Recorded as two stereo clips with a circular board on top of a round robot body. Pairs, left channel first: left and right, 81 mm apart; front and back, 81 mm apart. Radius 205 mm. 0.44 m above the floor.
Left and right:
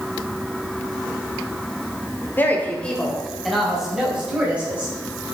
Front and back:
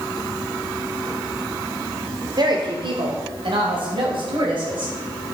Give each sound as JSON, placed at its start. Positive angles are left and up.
{"t": 2.4, "sound": "a woman speaking", "azimuth_deg": 155, "distance_m": 2.0}